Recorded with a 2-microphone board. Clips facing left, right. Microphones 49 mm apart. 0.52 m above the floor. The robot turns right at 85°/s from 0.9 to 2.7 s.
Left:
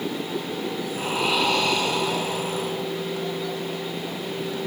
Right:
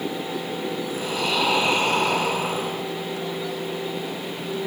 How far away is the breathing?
About 4 m.